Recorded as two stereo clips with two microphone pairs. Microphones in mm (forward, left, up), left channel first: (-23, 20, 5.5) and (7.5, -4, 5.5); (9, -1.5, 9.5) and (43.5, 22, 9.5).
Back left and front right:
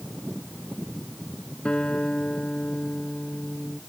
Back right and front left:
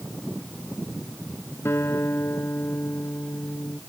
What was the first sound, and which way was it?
A guitar, 160° right.